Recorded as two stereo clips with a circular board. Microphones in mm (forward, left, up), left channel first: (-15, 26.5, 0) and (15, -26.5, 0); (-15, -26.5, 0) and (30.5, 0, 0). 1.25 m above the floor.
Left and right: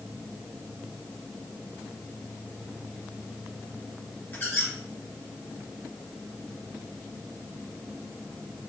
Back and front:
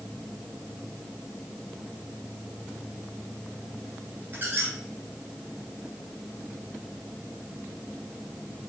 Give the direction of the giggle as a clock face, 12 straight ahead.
No giggle in this recording.